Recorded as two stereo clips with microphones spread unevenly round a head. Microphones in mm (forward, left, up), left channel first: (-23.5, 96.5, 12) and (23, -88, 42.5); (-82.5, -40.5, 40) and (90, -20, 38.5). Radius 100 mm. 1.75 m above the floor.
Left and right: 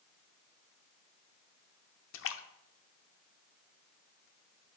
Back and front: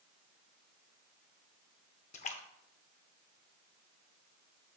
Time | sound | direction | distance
2.1 | a splash | 130° left | 0.6 m